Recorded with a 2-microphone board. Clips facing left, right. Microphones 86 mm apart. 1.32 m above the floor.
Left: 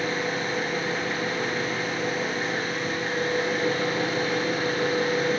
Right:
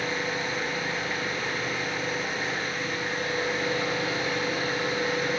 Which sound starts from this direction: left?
An engine running, at 0.0 s.